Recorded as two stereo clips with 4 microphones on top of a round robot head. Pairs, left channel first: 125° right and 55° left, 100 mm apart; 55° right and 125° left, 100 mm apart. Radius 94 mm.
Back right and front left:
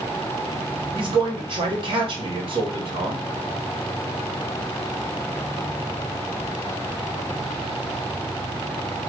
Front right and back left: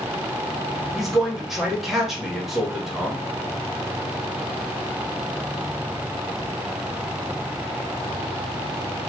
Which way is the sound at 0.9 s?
40° left.